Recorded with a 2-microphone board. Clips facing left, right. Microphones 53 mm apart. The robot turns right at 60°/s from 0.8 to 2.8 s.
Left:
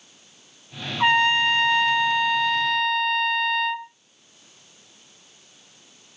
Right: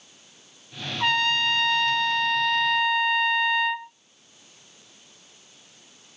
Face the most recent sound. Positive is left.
turn(degrees=-5)  # may be behind; listen again after turning